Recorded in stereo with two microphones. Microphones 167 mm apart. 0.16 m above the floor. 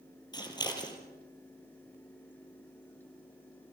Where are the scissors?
25° left (ahead or behind), 4 m.